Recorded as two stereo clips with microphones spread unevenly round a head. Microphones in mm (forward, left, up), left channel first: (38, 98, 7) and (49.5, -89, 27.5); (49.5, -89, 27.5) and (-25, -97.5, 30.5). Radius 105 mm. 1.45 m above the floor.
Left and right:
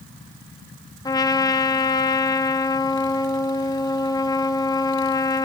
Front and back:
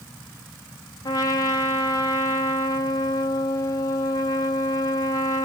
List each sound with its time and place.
1.1 s a trumpet: 25° left, 0.9 m